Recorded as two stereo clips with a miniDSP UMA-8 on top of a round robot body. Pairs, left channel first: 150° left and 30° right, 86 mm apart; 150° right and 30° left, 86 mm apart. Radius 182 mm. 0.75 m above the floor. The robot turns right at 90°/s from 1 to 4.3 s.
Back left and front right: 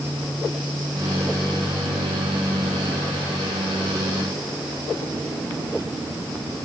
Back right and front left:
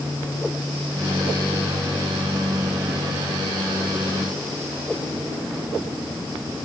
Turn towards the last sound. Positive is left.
No sound to turn to.